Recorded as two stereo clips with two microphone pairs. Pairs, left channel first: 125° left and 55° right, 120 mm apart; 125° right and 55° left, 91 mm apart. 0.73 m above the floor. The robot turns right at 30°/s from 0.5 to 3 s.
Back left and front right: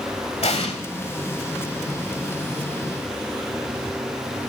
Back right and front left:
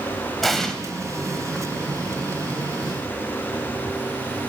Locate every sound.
0.4 s an explosion: 150° left, 1.2 m; by 0.7 s 155° left, 1.2 m